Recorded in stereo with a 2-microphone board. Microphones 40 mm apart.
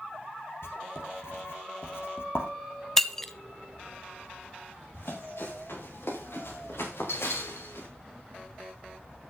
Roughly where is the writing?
Left.